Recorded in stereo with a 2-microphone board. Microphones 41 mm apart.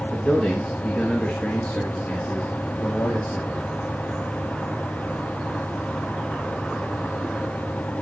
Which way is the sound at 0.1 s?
5° left (ahead or behind).